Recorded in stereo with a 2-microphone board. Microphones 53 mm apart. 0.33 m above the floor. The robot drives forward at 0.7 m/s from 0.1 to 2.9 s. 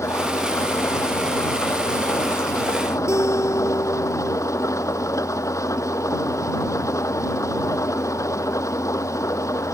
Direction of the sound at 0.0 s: 65° left (ahead or behind).